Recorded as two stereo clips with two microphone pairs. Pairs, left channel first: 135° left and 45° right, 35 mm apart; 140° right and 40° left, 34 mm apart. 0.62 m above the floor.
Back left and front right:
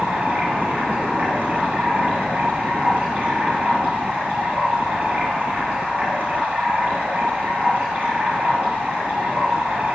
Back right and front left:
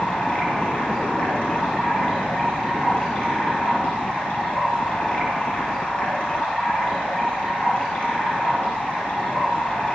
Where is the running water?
95° right, 6 m.